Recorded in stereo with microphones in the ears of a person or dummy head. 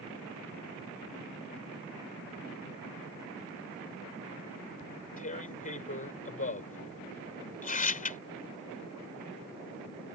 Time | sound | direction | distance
4.8 | tearing paper | 40° left (ahead or behind) | ?